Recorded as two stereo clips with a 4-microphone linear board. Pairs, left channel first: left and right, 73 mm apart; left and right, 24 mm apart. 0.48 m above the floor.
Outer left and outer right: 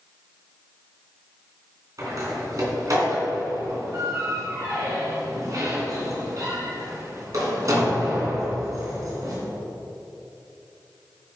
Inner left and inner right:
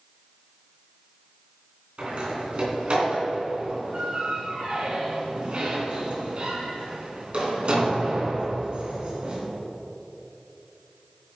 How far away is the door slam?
About 3 m.